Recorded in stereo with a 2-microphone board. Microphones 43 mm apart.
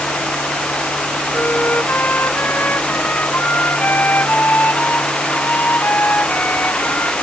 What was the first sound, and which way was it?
A flute, 50° left (ahead or behind).